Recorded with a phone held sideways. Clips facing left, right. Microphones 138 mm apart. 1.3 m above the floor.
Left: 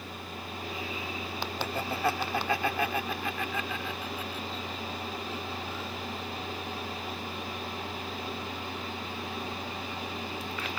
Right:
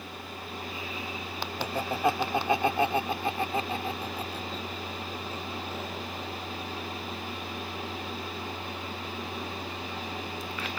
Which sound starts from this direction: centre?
Laughter, at 1.6 s.